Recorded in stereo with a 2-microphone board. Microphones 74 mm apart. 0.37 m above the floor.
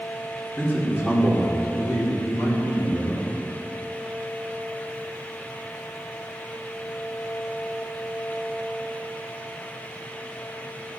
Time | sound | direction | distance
0.6 | a man speaking | 25° left (ahead or behind) | 2.5 m